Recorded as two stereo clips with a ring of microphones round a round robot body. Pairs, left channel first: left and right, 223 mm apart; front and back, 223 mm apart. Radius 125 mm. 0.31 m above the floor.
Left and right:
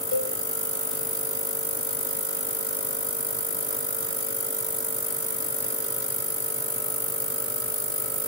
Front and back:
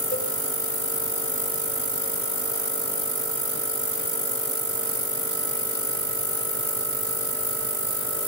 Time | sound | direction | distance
0.1 | a cowbell | 60° left | 7.5 m